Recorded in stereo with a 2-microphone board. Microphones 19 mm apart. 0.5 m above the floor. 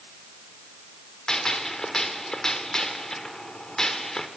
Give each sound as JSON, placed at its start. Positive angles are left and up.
{"t": 1.3, "sound": "a gunshot", "side_deg": 30, "distance_m": 1.8}